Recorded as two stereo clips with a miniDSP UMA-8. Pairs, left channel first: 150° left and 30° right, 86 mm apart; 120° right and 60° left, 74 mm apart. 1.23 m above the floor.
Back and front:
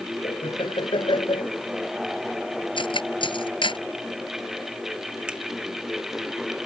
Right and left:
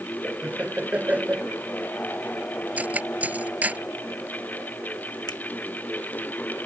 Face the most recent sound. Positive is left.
turn(degrees=-105)